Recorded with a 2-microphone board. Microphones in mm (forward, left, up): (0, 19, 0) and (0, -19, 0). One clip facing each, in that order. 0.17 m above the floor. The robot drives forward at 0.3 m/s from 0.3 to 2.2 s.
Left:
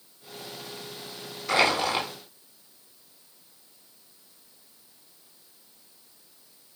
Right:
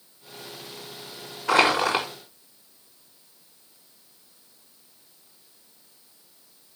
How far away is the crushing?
About 6 m.